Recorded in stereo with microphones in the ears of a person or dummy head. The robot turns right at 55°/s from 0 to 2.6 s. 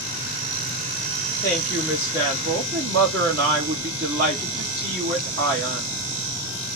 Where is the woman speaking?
165° left, 1.8 m; by 6.0 s 130° right, 1.8 m.